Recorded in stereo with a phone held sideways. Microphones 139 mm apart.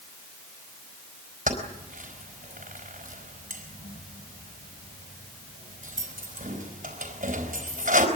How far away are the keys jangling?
About 4 m.